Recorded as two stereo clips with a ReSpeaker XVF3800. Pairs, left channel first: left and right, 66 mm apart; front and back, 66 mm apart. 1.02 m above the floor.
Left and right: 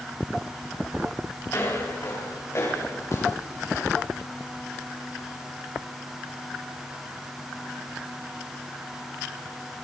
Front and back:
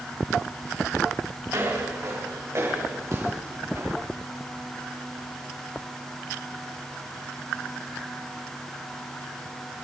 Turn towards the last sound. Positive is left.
turn(degrees=130)